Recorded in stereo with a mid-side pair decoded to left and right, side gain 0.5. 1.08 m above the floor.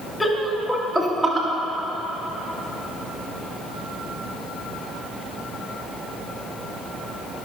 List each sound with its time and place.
0.2 s laughter: 10° left, 2 m; by 1.5 s 45° right, 1.4 m